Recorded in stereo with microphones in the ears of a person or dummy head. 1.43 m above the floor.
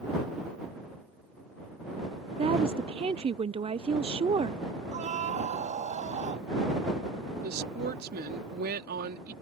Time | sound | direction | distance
2.4 | a woman speaking | 25° right (ahead or behind) | ?
4.9 | a scream | 35° right (ahead or behind) | ?
7.4 | a woman speaking | 60° right (ahead or behind) | ?